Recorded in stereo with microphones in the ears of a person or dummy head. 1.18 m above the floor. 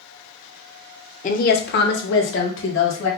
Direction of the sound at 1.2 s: 35° left (ahead or behind).